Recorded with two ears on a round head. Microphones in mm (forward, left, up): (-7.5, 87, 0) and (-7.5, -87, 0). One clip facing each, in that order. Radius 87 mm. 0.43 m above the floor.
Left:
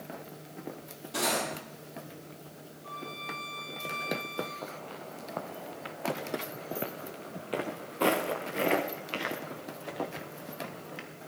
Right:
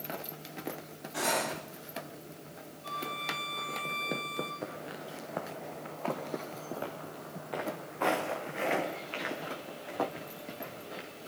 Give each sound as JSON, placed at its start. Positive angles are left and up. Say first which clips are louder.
{"t": 1.1, "sound": "cutlery clinking", "louder": "left 1 dB", "side_deg": 55, "distance_m": 8.0}
{"t": 2.8, "sound": "a violin", "louder": "right 2 dB", "side_deg": -50, "distance_m": 4.0}
{"t": 4.6, "sound": "footsteps", "louder": "right 1 dB", "side_deg": -25, "distance_m": 1.9}